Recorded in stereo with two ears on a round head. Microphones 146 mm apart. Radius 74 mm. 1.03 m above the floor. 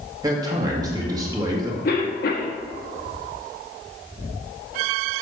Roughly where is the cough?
Left.